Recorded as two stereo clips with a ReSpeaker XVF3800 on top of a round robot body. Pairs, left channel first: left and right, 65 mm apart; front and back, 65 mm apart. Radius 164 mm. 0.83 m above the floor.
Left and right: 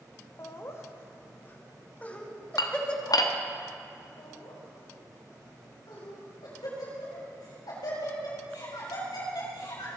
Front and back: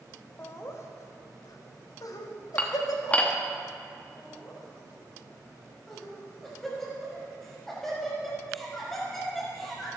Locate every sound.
0.4 s laughter: 50° left, 1.9 m; by 3.4 s 10° left, 3 m
2.6 s dishes clattering: 70° left, 1.2 m
4.2 s laughter: 85° left, 7 m